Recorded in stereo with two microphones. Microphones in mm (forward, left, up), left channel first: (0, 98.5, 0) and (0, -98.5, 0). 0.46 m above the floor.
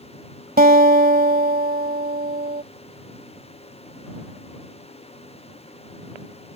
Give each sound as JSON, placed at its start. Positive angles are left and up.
{"t": 0.6, "sound": "a guitar", "side_deg": -50}